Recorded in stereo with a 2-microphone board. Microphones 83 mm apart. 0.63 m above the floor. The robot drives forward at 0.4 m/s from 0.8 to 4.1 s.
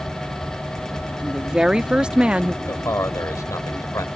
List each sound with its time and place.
1.2 s a woman speaking: 10° right (ahead or behind); by 2.6 s 15° right (ahead or behind)
2.7 s a man speaking: 35° left (ahead or behind); by 4.1 s 45° left (ahead or behind)